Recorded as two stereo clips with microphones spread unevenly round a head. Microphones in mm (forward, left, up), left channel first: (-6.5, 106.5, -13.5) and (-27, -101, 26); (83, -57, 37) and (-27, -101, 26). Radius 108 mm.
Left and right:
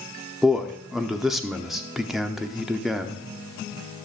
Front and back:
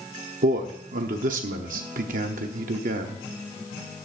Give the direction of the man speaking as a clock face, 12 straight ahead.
6 o'clock.